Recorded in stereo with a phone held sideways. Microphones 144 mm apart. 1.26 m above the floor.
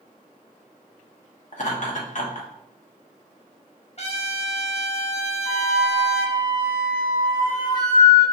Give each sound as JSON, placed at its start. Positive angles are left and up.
{"t": 1.5, "sound": "laughter", "side_deg": 60, "distance_m": 1.1}
{"t": 4.0, "sound": "a trumpet", "side_deg": 45, "distance_m": 0.6}
{"t": 5.5, "sound": "a flute", "side_deg": 70, "distance_m": 1.8}